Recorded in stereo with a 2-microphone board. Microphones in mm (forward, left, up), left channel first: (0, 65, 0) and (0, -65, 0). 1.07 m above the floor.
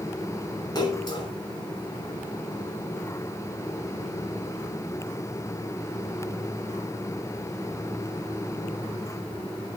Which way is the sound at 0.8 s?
30° left (ahead or behind).